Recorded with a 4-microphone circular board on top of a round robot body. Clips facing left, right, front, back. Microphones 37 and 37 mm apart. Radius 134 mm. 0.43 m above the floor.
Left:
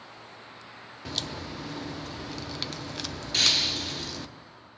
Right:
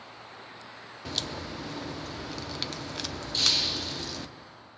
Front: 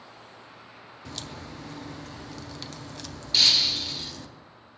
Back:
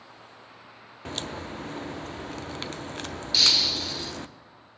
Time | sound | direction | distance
1.1 | a crack | straight behind | 0.7 m
3.3 | breaking glass | 85° left | 1.5 m